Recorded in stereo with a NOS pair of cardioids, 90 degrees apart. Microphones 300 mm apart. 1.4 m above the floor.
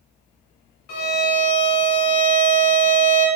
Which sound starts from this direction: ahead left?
A violin, at 0.9 s.